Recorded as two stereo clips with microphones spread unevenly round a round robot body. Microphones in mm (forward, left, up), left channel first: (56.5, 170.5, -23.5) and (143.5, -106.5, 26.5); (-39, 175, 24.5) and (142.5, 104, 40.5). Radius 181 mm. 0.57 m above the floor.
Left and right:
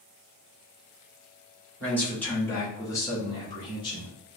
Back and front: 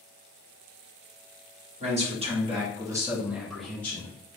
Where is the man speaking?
30° left, 1.8 m; by 4.1 s 120° left, 1.2 m.